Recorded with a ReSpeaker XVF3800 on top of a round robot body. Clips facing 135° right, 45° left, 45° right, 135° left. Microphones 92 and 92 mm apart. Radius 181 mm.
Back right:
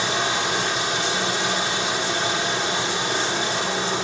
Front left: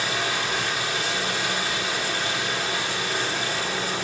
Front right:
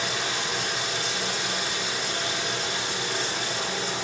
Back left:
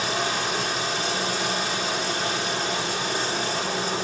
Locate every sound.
0.0 s running water: 165° left, 4.5 m